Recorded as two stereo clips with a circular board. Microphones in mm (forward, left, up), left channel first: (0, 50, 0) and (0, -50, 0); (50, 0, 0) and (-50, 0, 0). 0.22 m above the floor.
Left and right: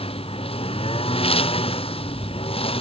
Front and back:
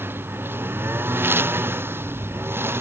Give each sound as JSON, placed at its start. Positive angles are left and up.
{"t": 0.0, "sound": "a lawn mower", "azimuth_deg": 110}